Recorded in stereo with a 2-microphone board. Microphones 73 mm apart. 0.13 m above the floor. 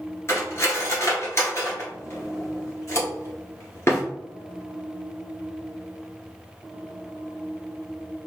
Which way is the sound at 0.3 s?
40° left (ahead or behind).